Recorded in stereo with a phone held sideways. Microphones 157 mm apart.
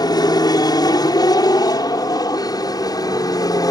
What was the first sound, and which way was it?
An aircraft, 25° left (ahead or behind).